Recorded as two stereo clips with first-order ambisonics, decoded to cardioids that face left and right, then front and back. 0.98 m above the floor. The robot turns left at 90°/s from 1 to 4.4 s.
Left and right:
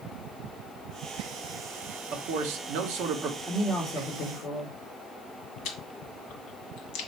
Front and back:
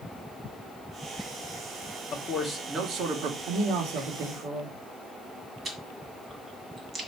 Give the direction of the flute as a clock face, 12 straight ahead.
I don't hear a flute.